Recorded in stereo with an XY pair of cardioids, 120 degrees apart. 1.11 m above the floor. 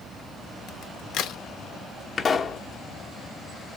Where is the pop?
30° left, 0.8 m.